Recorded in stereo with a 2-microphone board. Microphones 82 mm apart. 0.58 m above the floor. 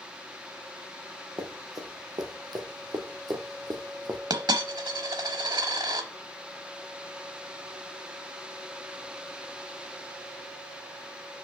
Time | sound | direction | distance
1.4 | running footsteps | 50° right (ahead or behind) | 1.9 m
4.3 | a dropped coin | 60° right (ahead or behind) | 0.9 m